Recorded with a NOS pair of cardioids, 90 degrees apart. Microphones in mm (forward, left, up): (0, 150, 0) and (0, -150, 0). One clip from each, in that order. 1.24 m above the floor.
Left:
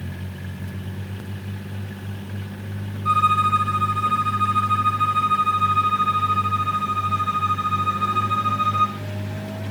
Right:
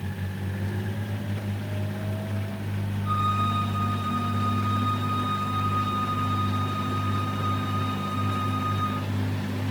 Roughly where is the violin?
Left.